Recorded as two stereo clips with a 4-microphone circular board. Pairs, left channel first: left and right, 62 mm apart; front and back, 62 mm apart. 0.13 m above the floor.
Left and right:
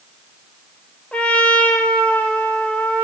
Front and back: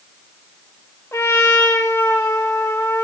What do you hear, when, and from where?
1.1 s a trumpet: 25° left, 2.5 m